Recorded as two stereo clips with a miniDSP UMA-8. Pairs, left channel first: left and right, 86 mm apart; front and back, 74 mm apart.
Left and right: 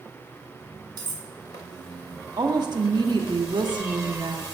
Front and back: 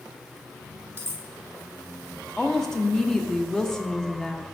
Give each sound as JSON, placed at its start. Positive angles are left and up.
{"t": 1.0, "sound": "cutlery clinking", "azimuth_deg": -125, "distance_m": 1.2}
{"t": 2.4, "sound": "a woman speaking", "azimuth_deg": -85, "distance_m": 0.9}